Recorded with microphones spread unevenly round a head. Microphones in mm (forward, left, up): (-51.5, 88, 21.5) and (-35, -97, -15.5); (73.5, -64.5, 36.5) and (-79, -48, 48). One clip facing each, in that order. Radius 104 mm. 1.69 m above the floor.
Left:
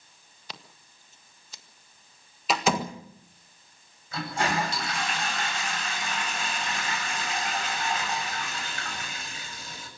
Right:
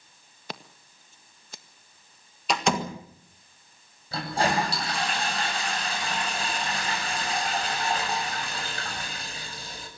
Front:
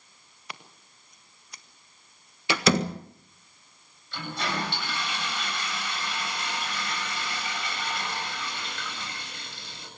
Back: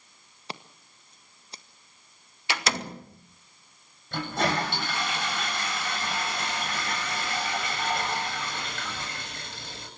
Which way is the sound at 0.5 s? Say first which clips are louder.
Right 7 dB, back 5 dB; 130° right.